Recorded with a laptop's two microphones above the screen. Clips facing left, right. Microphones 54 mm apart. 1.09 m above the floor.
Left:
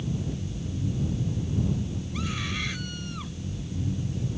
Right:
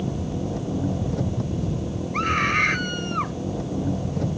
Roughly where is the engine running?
Right.